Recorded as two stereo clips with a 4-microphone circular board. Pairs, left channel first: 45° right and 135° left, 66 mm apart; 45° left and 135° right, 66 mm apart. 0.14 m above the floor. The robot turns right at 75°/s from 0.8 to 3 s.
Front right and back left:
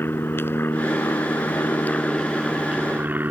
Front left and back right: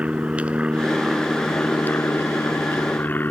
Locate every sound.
0.0 s an aircraft: 75° right; by 3.3 s 90° left